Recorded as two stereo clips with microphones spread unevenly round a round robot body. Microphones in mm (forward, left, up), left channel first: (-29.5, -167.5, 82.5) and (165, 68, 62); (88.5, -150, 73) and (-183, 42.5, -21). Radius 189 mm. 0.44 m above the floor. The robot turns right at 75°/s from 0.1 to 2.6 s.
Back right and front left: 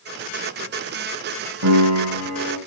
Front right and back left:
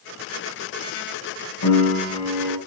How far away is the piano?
About 6.5 m.